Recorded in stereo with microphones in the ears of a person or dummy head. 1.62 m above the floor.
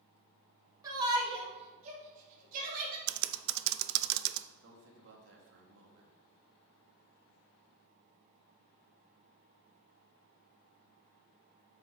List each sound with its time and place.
0.8 s a shout: 20° right (ahead or behind), 3 m; by 3.0 s 50° right (ahead or behind), 4.5 m
3.1 s typing on a keyboard: 60° right (ahead or behind), 0.5 m
4.6 s a man speaking: 70° right (ahead or behind), 2 m